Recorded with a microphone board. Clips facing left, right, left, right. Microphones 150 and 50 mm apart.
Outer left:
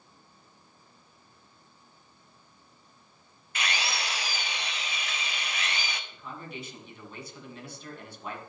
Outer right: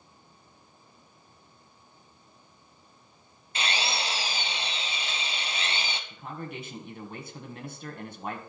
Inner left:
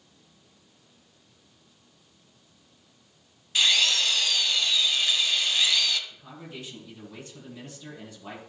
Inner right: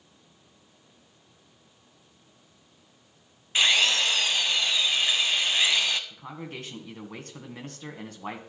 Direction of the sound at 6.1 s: 55° right (ahead or behind).